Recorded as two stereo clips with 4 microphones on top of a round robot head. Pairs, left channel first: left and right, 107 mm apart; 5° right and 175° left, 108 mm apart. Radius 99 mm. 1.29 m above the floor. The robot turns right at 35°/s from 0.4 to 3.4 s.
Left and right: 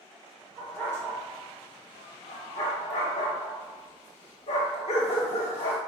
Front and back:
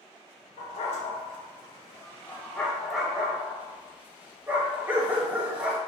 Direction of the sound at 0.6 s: Straight ahead.